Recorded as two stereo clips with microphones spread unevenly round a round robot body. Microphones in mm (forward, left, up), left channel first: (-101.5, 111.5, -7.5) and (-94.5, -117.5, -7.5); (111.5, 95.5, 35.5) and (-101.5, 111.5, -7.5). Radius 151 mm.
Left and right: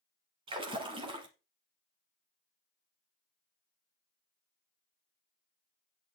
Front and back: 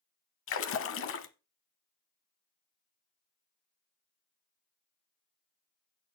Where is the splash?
15° right, 0.9 m.